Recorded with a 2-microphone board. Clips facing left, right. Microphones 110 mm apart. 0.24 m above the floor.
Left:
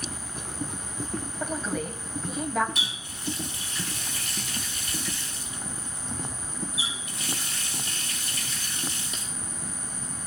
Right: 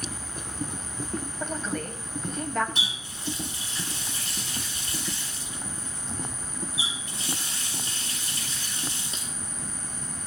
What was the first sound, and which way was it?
A woman speaking, 5° left (ahead or behind).